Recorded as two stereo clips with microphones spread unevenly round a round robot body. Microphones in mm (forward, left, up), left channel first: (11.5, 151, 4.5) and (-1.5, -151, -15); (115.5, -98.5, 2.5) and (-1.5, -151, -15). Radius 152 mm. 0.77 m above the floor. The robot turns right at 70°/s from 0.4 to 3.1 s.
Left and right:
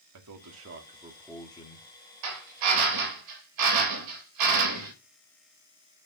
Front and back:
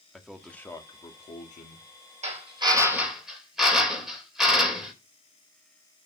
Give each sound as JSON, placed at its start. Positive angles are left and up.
{"t": 0.1, "sound": "a man speaking", "azimuth_deg": -70, "distance_m": 1.9}
{"t": 2.2, "sound": "a drill", "azimuth_deg": -130, "distance_m": 3.5}